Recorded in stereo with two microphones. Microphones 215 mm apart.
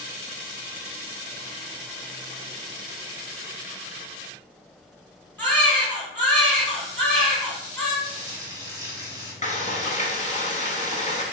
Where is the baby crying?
10° left (ahead or behind), 2.0 m.